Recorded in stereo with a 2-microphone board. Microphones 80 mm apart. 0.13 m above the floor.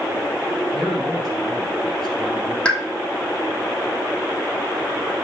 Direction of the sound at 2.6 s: 15° left (ahead or behind).